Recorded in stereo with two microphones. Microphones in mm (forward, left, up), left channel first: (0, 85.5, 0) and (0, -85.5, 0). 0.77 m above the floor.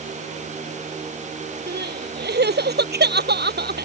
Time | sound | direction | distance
1.7 | crying | 80° right | ?